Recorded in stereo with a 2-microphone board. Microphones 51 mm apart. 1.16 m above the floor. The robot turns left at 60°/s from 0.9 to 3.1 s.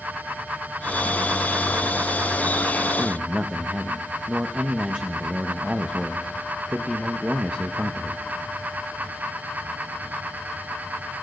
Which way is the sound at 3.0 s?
15° right (ahead or behind).